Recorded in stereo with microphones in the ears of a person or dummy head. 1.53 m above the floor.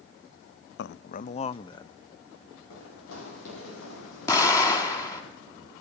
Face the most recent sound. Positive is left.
turn(degrees=20)  # may be behind; listen again after turning